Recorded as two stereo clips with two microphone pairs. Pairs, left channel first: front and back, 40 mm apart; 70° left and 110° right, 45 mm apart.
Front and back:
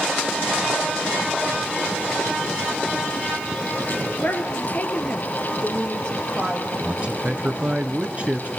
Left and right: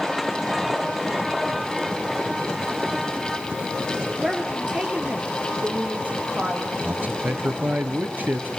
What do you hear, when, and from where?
4.2 s a woman speaking: 30° right, 3 m; by 6.7 s 75° right, 4.5 m
6.8 s a man speaking: 130° right, 2 m